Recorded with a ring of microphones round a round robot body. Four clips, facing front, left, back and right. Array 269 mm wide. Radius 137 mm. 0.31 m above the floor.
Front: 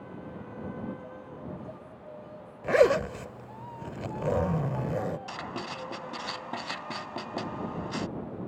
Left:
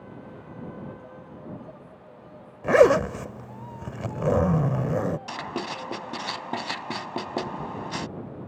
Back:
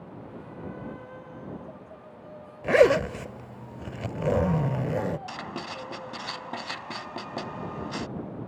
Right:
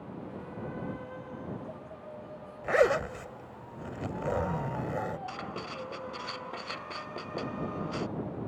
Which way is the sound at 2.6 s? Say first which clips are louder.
Left 8 dB, back 3 dB; 110° left.